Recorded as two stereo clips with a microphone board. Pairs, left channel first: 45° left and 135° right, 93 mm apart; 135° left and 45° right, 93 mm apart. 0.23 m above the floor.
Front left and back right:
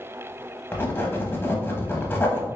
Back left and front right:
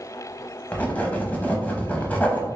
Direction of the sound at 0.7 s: 80° left.